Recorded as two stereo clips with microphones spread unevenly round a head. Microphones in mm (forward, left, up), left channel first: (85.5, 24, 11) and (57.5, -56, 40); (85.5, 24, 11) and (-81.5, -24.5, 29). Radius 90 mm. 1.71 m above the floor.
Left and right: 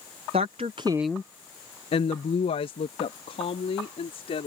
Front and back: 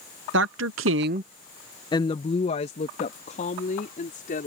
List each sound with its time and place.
0.3 s a woman speaking: 145° right; by 4.5 s 65° left